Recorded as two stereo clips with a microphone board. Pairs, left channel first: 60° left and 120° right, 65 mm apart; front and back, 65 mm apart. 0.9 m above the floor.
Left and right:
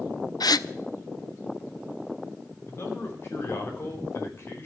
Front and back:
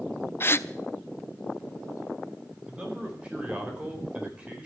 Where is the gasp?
55° left, 0.5 m.